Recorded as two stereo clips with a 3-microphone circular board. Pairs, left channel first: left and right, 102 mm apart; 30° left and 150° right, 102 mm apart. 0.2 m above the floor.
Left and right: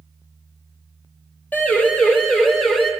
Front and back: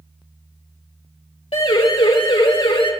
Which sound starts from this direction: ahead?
A siren, at 1.5 s.